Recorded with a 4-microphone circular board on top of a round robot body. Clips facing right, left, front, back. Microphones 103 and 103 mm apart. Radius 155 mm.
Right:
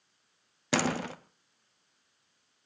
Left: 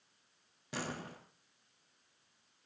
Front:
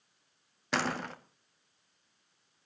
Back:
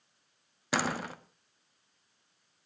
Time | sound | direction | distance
0.7 | a door slam | 95° right | 1.4 m